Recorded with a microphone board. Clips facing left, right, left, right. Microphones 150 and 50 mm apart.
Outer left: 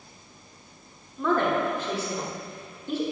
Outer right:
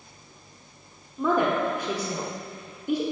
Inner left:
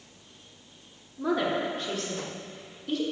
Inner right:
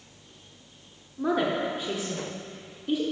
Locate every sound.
1.2 s a woman speaking: 15° right (ahead or behind), 1.0 m